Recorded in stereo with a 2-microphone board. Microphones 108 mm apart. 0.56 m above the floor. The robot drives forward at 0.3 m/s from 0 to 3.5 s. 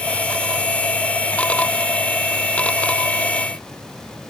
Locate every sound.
Only background noise.